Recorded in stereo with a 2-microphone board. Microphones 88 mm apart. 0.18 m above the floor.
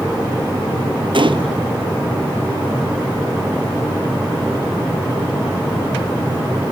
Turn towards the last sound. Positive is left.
turn(degrees=-65)  # may be behind; listen again after turning